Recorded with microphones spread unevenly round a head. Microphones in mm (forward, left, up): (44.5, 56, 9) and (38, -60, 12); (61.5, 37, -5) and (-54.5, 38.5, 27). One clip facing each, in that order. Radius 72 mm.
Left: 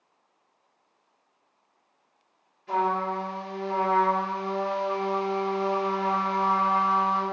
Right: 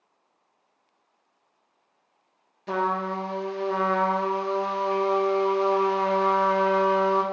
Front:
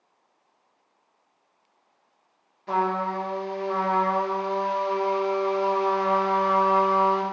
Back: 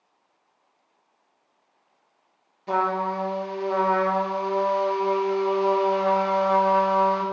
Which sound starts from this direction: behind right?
A trumpet, at 2.7 s.